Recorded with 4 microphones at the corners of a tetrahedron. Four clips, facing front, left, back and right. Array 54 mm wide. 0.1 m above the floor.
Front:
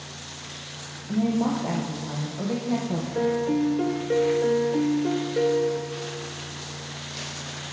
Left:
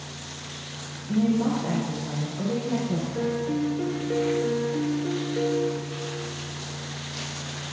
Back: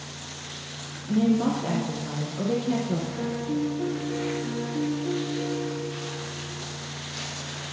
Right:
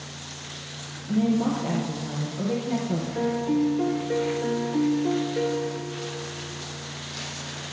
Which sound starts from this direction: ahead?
A piano, at 3.1 s.